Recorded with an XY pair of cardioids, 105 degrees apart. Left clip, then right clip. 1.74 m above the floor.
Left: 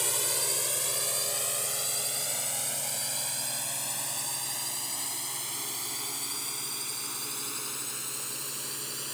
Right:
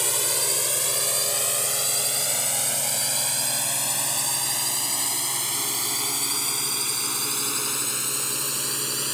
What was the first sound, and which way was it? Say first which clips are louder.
A drone: right 5 dB; 30° right.